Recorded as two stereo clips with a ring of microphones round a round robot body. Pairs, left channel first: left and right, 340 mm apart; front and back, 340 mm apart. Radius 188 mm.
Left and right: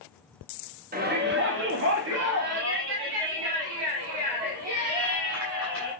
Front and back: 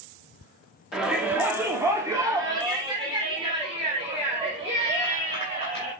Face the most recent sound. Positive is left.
turn(degrees=-110)